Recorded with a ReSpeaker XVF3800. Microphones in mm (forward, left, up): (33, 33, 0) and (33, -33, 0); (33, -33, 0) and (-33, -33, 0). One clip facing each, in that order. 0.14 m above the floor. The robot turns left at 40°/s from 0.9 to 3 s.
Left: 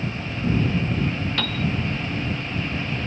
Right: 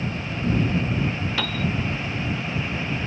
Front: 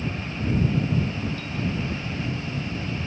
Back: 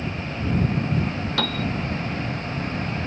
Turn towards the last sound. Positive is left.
turn(degrees=120)